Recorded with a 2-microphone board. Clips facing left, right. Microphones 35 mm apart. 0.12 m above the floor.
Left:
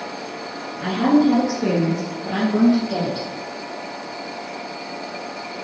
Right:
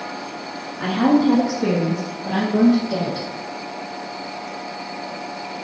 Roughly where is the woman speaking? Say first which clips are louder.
Even; right.